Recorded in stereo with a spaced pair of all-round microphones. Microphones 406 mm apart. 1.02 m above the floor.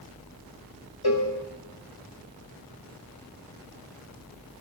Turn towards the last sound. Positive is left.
turn(degrees=65)  # may be behind; listen again after turning